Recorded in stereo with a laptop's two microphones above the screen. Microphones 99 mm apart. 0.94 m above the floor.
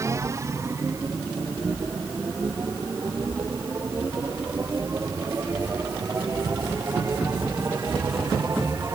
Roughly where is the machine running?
Right.